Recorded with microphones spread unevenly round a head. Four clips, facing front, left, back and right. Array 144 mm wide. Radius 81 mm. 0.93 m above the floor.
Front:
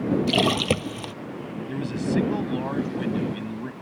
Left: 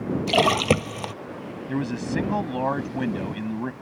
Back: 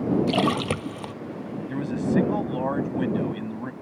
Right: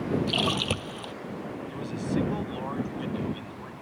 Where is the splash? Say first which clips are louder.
Left 9 dB, front 1 dB; 85° left.